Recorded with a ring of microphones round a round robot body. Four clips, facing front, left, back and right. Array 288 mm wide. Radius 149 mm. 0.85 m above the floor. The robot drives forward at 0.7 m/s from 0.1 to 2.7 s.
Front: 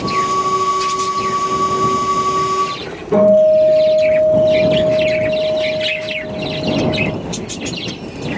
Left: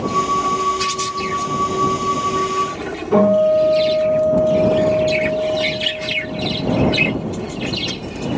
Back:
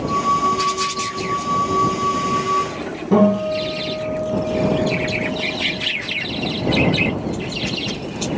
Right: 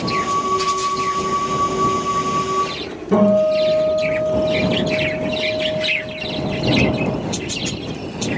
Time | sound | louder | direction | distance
3.1 | a guitar | left 1 dB, front 7 dB | 155° right | 4 m